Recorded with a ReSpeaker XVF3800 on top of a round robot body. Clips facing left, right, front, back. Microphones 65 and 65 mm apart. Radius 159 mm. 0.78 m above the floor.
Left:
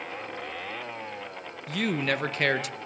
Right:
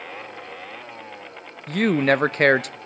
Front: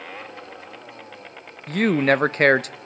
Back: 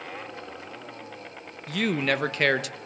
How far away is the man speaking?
About 0.9 m.